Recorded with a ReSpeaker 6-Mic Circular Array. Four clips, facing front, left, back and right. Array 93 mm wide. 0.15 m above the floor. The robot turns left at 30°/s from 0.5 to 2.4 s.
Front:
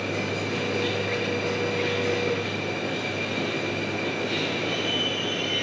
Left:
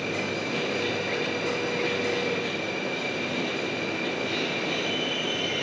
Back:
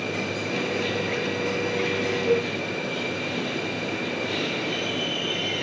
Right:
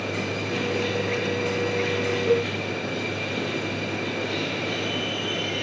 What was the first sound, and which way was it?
A cowbell, 105° right.